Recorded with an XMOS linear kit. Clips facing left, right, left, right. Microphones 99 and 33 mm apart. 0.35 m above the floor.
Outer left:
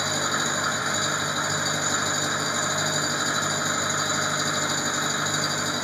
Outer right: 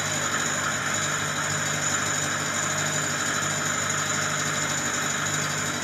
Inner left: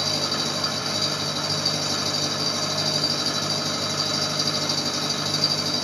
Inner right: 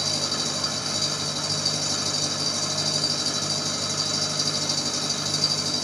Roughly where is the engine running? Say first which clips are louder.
Outer left 2 dB, inner left 2 dB; centre.